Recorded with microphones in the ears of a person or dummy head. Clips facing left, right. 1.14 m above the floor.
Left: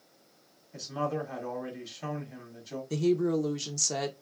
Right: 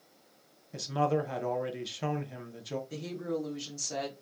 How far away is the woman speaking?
About 0.6 m.